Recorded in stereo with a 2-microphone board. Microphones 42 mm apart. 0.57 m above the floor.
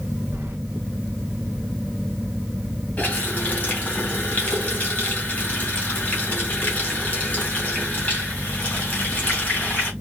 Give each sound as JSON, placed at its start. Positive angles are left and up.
{"t": 0.3, "sound": "keys jangling", "side_deg": -60, "distance_m": 1.2}
{"t": 3.0, "sound": "a running tap", "side_deg": 40, "distance_m": 2.0}